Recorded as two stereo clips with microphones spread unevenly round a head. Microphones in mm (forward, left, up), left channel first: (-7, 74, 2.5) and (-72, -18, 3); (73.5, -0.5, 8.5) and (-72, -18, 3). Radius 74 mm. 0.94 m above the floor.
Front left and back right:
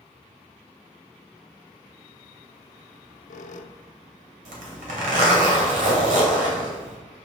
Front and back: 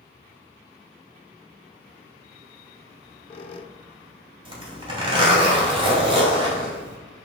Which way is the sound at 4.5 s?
115° right.